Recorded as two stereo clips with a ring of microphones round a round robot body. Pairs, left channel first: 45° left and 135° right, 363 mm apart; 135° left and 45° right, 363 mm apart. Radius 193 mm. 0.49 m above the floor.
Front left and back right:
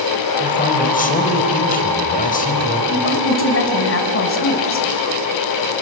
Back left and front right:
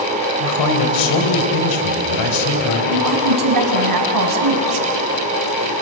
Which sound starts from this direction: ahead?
A woman speaking, at 2.9 s.